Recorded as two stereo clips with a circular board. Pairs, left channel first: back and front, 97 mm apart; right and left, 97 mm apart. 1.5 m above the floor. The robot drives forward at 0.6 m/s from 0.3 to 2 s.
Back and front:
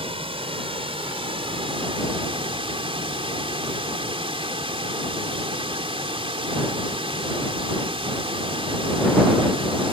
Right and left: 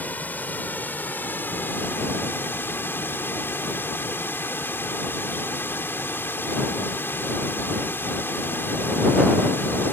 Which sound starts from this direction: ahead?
Running water, at 0.0 s.